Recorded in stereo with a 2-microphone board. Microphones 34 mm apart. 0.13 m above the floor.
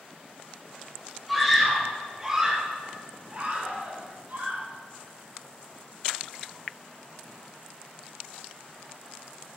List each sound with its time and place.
1.3 s a scream: 5° left (ahead or behind), 4 m; by 4.6 s 60° right (ahead or behind), 4.5 m